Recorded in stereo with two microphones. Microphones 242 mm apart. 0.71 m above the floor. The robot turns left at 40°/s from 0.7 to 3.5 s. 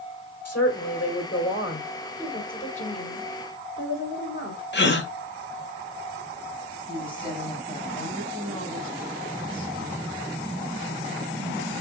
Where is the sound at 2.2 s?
175° left, 3 m; by 4.6 s 120° left, 3 m.